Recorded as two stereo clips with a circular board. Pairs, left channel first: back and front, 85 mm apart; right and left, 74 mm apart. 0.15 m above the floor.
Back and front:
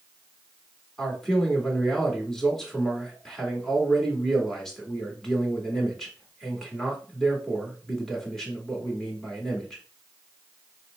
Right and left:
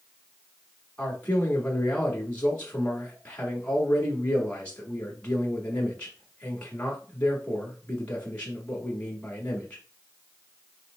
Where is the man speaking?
95° right, 1.1 m.